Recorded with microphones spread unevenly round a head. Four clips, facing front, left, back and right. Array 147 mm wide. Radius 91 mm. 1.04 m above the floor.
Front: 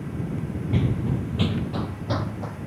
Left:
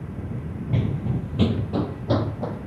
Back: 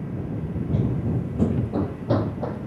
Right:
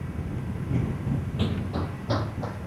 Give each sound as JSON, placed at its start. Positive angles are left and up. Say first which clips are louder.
{"t": 0.7, "sound": "running footsteps", "louder": "left 3 dB, even", "azimuth_deg": 75}